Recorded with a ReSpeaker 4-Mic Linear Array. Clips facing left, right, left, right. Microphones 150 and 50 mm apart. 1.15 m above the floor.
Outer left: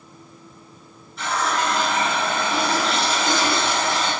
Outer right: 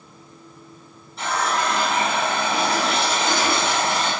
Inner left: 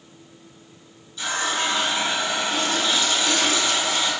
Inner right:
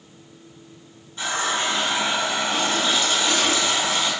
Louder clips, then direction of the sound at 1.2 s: Even, inner right 1 dB; 30° right (ahead or behind).